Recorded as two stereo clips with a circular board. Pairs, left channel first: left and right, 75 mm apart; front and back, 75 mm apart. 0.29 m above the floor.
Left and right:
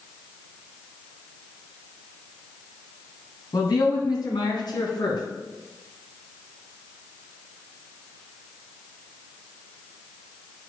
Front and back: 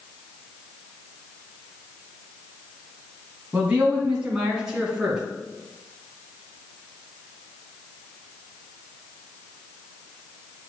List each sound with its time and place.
3.5 s a man speaking: 110° left, 1.9 m; by 5.2 s 95° left, 3 m